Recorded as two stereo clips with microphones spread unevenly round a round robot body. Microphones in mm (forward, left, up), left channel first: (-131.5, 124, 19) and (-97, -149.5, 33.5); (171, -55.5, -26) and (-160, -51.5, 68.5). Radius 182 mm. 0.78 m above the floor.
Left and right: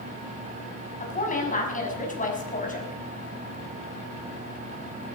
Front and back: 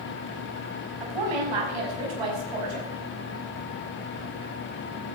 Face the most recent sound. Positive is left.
turn(degrees=160)